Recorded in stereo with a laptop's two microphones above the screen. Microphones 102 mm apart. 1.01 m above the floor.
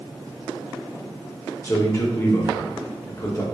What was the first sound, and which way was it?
A man speaking, 30° left (ahead or behind).